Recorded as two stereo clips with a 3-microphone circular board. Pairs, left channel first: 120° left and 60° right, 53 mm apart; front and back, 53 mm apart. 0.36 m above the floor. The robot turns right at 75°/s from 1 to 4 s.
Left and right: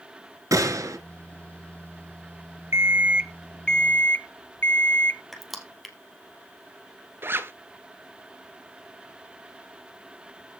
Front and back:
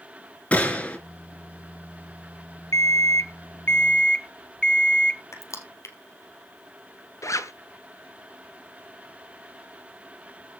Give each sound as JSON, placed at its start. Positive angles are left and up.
{"t": 0.5, "sound": "a gunshot", "azimuth_deg": -65, "distance_m": 1.8}
{"t": 2.7, "sound": "an alarm clock", "azimuth_deg": -25, "distance_m": 0.6}
{"t": 5.3, "sound": "crushing", "azimuth_deg": 30, "distance_m": 1.9}
{"t": 7.2, "sound": "a zipper", "azimuth_deg": -15, "distance_m": 0.8}